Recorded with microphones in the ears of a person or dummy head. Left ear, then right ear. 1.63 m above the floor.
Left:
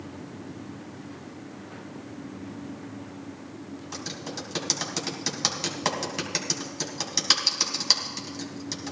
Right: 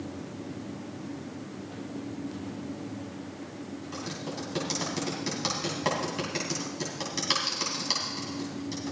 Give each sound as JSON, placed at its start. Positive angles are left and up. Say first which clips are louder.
{"t": 3.9, "sound": "typing on a keyboard", "louder": "left 2 dB", "side_deg": 30, "distance_m": 2.5}